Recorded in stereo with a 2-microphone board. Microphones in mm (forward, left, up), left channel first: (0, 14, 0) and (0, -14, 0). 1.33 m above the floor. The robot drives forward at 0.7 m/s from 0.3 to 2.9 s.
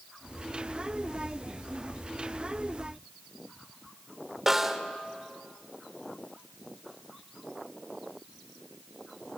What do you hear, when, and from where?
4.5 s a snare drum: 15° right (ahead or behind), 1.4 m